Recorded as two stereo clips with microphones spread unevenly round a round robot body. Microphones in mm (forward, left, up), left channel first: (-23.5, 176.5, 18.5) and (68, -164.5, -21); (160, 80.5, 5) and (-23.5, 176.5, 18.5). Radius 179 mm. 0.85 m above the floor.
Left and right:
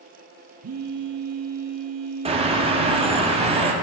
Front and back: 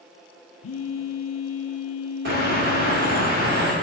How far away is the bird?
About 1.3 m.